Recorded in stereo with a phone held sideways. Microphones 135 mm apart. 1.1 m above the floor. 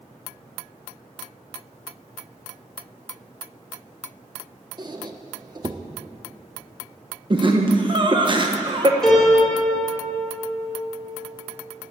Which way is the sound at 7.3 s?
35° right (ahead or behind).